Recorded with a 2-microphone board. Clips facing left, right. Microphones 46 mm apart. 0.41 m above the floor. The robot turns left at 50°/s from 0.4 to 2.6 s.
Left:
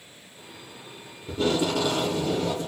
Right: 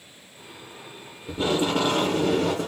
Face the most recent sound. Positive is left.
turn(degrees=-75)